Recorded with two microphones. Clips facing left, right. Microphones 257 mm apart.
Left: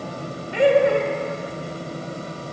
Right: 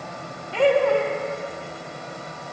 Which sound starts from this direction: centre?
Laughter, at 0.5 s.